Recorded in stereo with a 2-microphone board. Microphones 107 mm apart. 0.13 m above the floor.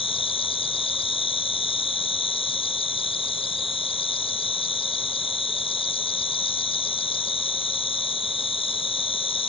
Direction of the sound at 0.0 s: 65° left (ahead or behind).